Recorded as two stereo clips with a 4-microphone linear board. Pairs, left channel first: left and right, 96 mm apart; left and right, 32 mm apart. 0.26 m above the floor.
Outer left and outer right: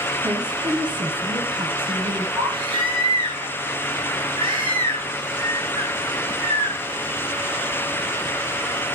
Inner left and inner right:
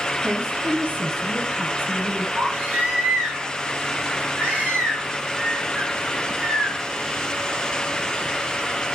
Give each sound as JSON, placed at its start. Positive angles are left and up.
{"t": 0.2, "sound": "a woman speaking", "side_deg": -50, "distance_m": 2.5}
{"t": 2.4, "sound": "a baby crying", "side_deg": -60, "distance_m": 8.5}